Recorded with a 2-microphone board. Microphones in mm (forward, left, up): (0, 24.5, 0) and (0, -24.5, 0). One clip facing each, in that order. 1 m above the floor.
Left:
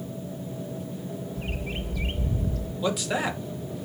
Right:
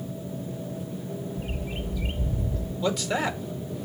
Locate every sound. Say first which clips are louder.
1.4 s a bird: even; 65° left (ahead or behind), 0.7 m
2.8 s a man speaking: even; 5° left (ahead or behind), 2.0 m